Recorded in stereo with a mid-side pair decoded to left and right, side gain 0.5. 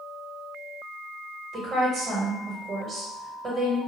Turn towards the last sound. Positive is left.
turn(degrees=-50)